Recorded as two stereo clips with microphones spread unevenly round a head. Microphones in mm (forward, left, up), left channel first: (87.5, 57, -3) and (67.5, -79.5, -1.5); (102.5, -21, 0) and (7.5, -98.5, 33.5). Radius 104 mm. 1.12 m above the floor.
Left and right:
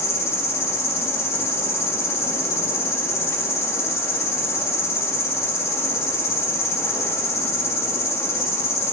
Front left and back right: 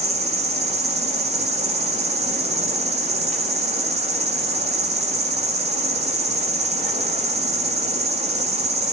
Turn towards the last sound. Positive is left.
turn(degrees=160)